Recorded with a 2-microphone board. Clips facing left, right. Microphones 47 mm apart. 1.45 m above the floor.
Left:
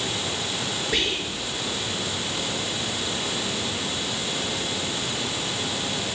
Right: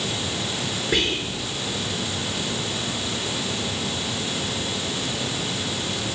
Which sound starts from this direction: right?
Whispering, at 0.9 s.